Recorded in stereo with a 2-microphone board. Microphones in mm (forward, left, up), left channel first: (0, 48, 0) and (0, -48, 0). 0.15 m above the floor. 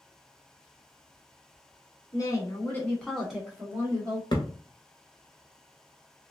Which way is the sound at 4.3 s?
50° left (ahead or behind).